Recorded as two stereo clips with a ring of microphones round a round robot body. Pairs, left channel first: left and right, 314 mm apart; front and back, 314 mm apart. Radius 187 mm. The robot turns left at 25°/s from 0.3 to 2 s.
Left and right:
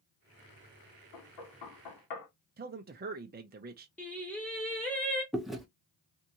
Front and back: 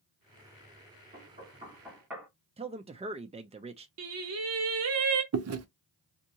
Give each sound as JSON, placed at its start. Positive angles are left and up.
{"t": 1.1, "sound": "knocking", "azimuth_deg": 115, "distance_m": 2.0}
{"t": 2.6, "sound": "a man speaking", "azimuth_deg": -120, "distance_m": 0.6}
{"t": 4.0, "sound": "singing", "azimuth_deg": 175, "distance_m": 0.6}
{"t": 5.3, "sound": "chewing", "azimuth_deg": 180, "distance_m": 0.8}